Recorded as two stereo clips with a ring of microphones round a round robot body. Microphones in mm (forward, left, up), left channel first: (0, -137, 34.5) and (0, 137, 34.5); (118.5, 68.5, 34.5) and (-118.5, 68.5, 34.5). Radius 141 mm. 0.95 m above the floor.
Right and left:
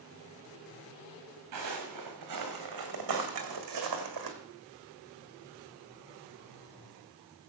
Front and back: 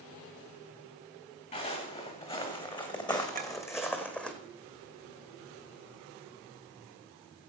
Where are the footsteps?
60° left, 3.5 m; by 4.3 s 85° left, 2 m.